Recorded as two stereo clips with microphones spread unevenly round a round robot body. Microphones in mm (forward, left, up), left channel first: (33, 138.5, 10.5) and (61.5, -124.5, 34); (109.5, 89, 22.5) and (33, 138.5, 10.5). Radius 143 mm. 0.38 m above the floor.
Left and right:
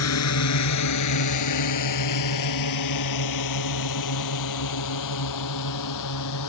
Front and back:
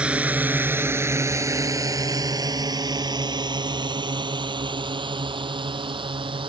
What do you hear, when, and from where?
0.0 s a drone: 70° left; by 6.5 s 125° left